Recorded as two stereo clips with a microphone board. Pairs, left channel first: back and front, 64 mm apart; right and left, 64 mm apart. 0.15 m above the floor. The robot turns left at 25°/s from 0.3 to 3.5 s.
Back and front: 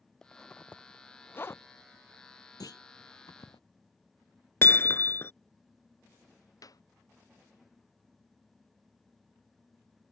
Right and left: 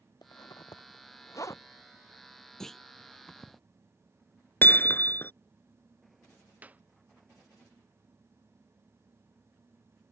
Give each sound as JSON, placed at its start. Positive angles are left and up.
{"t": 0.2, "sound": "a zipper", "azimuth_deg": -100}
{"t": 2.6, "sound": "a clunk", "azimuth_deg": -170}
{"t": 4.6, "sound": "hammering", "azimuth_deg": -140}
{"t": 6.6, "sound": "a clap", "azimuth_deg": 155}